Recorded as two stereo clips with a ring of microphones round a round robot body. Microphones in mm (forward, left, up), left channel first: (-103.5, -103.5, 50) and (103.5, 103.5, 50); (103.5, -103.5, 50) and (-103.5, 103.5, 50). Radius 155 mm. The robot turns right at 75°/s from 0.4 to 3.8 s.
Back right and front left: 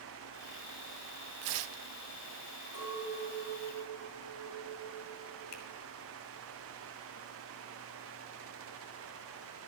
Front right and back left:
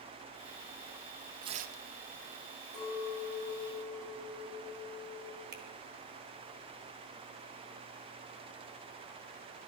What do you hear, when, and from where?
1.4 s tearing paper: 55° left, 0.5 m; by 1.8 s 90° left, 0.5 m
2.7 s a clink: 15° left, 7 m; by 5.4 s 95° left, 7 m
5.5 s a finger snap: 170° right, 2.0 m